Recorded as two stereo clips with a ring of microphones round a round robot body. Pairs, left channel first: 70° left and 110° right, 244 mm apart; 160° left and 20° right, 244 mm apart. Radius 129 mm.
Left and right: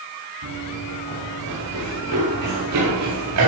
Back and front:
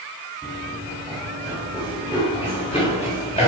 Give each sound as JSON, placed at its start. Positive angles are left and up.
{"t": 0.4, "sound": "running footsteps", "azimuth_deg": -120, "distance_m": 8.0}